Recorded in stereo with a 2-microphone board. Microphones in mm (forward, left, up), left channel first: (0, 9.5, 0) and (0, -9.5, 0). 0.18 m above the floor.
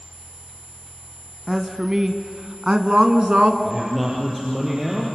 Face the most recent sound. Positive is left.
turn(degrees=-10)  # may be behind; listen again after turning